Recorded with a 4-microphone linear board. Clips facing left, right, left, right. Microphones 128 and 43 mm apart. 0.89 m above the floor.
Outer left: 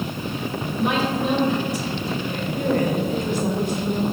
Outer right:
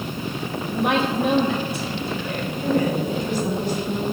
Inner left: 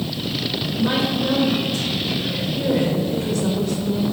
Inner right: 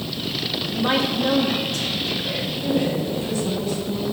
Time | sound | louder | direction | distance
0.7 | a woman speaking | outer right 1 dB, even | 60° right (ahead or behind) | 1.5 m
2.6 | a woman speaking | even, inner left 2 dB | 50° left (ahead or behind) | 1.8 m